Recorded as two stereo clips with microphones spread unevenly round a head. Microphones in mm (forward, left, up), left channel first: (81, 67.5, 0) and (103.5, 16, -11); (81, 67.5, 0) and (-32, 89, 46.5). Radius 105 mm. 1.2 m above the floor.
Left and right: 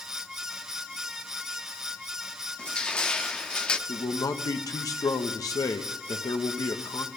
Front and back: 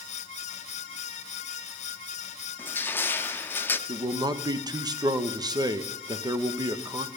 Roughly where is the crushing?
Left.